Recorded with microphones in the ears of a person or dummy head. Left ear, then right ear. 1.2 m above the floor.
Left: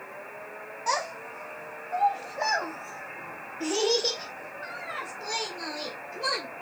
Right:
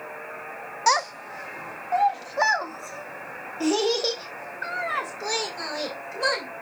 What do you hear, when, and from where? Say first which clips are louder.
0.9 s a child speaking: right 7 dB; 45° right (ahead or behind), 0.8 m; by 6.5 s 55° right (ahead or behind), 3.5 m